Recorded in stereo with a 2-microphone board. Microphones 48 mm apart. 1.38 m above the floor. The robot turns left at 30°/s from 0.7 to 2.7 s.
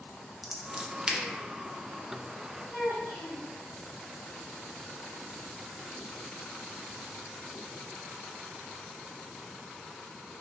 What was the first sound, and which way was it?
Scissors, 5° right (ahead or behind).